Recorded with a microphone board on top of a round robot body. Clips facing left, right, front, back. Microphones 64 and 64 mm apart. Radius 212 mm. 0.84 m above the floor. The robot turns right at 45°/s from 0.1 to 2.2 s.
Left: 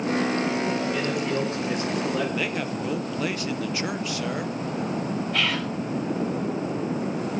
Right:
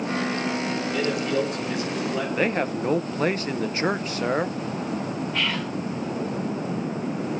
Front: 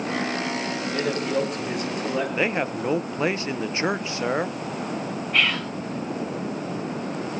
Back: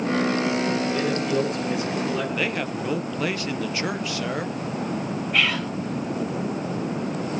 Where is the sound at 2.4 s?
55° right, 1.1 m.